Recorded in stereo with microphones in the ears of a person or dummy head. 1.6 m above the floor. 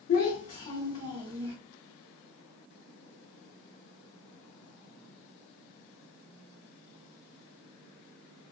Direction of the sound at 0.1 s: 50° left (ahead or behind).